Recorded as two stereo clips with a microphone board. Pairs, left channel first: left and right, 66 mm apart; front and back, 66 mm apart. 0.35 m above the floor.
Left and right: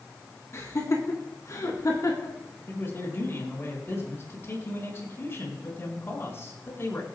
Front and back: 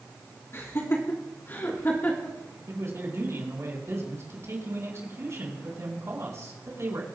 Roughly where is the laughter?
Ahead left.